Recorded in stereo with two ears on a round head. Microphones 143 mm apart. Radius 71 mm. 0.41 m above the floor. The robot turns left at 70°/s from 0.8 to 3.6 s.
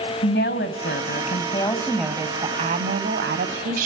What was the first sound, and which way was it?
A woman speaking, 85° left.